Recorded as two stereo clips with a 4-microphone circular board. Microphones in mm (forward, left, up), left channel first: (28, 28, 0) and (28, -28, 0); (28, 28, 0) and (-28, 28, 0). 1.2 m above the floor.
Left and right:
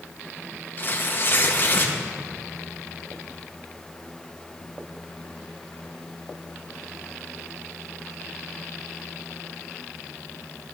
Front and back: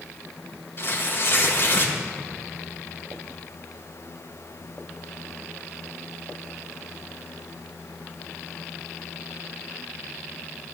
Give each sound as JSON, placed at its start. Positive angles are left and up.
{"t": 0.8, "sound": "tearing paper", "azimuth_deg": 40, "distance_m": 1.7}